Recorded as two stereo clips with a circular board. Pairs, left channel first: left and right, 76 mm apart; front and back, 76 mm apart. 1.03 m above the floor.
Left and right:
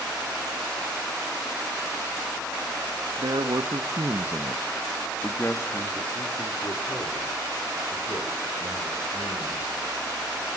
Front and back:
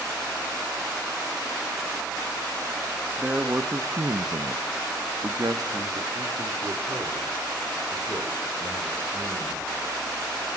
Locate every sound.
3.2 s a man speaking: 110° right, 1.6 m; by 9.8 s 120° left, 6 m